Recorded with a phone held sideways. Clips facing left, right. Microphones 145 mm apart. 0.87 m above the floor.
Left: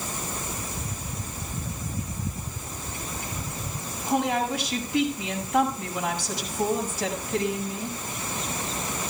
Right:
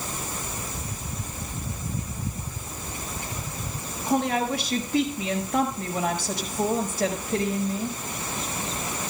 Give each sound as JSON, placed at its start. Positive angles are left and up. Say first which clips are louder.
{"t": 4.1, "sound": "a woman speaking", "louder": "right 1 dB", "side_deg": -70, "distance_m": 5.5}